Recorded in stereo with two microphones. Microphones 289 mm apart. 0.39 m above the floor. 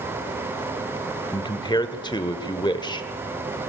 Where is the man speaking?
15° left (ahead or behind), 1.0 m.